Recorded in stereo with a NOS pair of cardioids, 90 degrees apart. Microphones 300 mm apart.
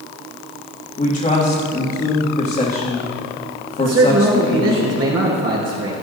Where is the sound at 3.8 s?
55° right, 4 m.